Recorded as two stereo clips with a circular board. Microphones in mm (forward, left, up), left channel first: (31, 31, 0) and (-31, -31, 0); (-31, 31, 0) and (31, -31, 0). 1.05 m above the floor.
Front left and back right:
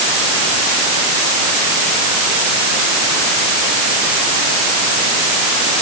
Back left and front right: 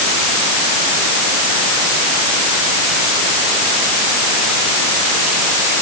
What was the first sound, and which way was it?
Only background noise.